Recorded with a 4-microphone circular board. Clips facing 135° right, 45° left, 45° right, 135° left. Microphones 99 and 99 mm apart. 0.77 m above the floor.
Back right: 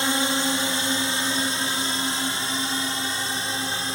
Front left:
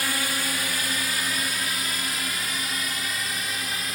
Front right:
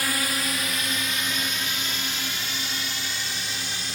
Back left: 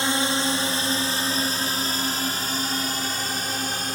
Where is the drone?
Straight behind; by 4.0 s 170° left.